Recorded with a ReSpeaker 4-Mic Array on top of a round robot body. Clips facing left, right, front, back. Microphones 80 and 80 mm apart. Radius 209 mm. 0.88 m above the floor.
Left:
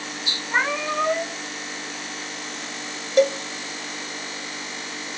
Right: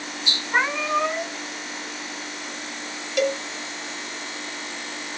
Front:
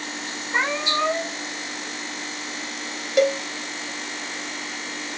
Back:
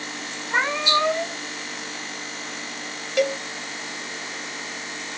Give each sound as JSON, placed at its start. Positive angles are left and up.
{"t": 0.5, "sound": "a cat meowing", "azimuth_deg": -170, "distance_m": 2.0}
{"t": 3.2, "sound": "a cowbell", "azimuth_deg": 55, "distance_m": 0.8}